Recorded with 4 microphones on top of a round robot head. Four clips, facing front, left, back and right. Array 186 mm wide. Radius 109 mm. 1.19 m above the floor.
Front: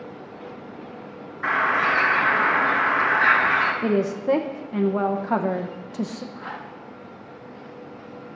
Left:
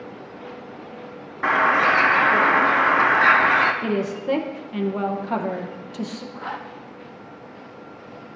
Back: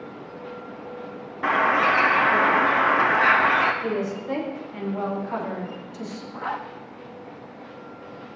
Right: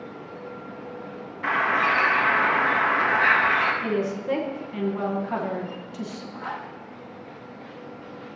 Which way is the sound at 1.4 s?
130° left.